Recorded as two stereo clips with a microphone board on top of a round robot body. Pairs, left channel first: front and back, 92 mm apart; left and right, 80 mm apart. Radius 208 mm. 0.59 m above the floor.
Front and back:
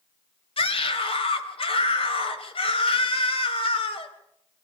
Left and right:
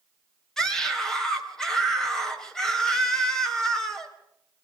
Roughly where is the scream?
Ahead.